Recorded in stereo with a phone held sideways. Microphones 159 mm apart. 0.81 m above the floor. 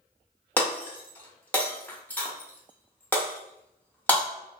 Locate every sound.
0.6 s breaking glass: 10° left (ahead or behind), 0.7 m